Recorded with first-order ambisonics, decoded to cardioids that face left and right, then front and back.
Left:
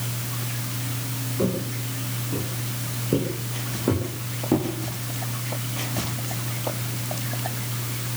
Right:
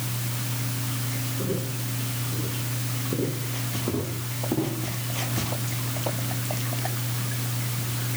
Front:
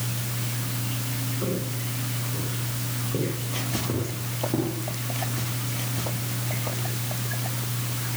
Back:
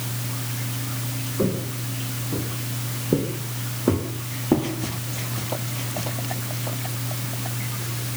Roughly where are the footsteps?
Behind left.